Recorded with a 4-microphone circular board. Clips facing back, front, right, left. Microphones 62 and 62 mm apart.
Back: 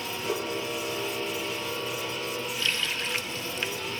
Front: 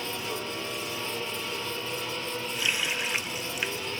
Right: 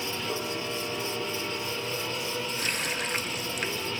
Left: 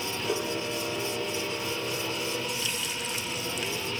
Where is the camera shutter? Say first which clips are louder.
Back 3 dB, left 4 dB; 145° left, 9.5 m.